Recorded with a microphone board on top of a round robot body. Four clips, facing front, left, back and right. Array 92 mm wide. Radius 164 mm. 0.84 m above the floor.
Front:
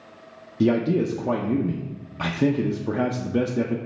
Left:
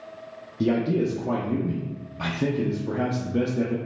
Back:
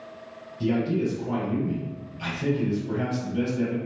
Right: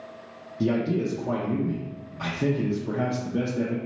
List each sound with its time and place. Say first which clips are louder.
0.6 s a man speaking: left 2 dB, front 4 dB; 5° right, 0.6 m